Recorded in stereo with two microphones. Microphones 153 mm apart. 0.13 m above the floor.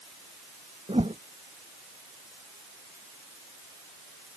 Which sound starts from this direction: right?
A whoosh, at 0.9 s.